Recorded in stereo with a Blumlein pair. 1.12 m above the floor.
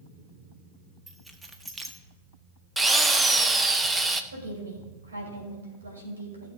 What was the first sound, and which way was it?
Keys jangling, 10° right.